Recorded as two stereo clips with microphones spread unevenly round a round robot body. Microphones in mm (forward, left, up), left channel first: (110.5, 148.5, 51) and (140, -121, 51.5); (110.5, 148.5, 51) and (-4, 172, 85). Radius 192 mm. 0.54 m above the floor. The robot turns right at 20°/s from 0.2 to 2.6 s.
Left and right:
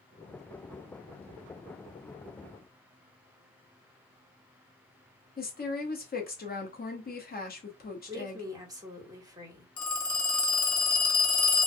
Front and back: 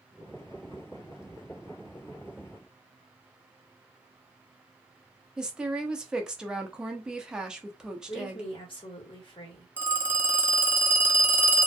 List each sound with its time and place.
5.4 s a woman speaking: 65° left, 0.9 m
8.1 s a woman speaking: 10° right, 1.6 m
9.8 s a phone ringing: 80° left, 0.9 m